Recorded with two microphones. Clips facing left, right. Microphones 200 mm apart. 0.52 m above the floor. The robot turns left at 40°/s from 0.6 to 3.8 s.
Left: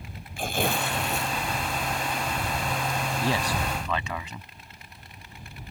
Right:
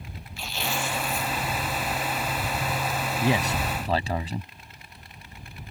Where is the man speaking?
15° right (ahead or behind); by 4.5 s 35° right (ahead or behind).